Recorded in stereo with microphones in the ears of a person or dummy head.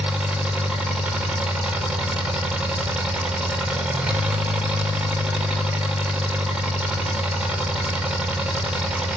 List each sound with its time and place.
0.0 s an engine running: 5° right (ahead or behind), 0.9 m